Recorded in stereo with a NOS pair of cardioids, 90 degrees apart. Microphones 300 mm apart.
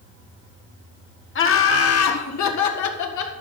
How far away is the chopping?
I don't hear chopping.